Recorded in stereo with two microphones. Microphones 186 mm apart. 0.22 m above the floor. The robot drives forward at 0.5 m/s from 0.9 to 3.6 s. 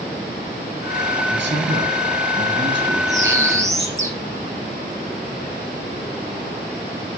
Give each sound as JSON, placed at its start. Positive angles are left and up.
{"t": 1.3, "sound": "a man speaking", "side_deg": -75, "distance_m": 5.0}
{"t": 3.1, "sound": "a bird", "side_deg": -15, "distance_m": 3.0}